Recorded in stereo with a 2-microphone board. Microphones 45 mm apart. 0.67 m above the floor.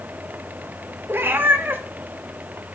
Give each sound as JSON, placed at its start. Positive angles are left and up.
{"t": 1.1, "sound": "a cat meowing", "side_deg": -50, "distance_m": 0.8}